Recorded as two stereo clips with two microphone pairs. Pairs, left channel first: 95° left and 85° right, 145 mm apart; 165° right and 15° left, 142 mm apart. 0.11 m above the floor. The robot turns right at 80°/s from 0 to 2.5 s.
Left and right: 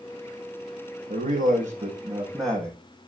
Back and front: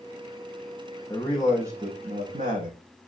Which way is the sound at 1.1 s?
100° right.